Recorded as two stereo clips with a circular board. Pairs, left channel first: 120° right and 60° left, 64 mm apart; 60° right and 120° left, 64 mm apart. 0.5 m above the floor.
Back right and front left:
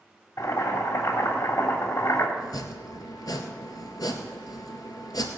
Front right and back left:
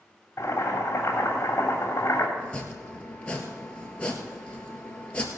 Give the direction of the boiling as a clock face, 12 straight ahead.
4 o'clock.